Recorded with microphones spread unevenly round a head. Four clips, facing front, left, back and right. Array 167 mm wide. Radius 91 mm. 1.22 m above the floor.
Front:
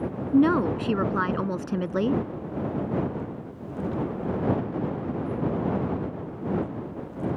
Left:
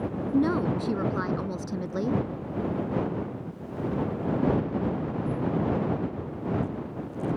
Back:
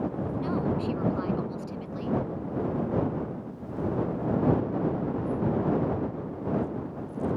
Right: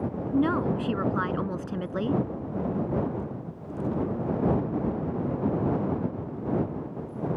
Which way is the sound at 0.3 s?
Straight ahead.